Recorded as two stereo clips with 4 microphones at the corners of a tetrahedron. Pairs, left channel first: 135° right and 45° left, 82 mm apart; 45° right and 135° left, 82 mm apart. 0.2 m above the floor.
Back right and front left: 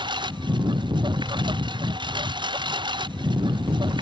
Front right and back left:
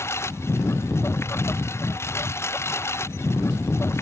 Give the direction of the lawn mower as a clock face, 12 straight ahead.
11 o'clock.